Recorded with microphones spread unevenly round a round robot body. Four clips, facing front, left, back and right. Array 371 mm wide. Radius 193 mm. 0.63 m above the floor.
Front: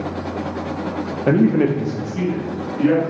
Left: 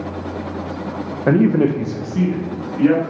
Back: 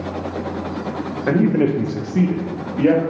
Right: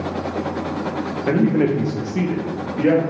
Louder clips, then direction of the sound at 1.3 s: Left 3 dB, front 1 dB; 50° left.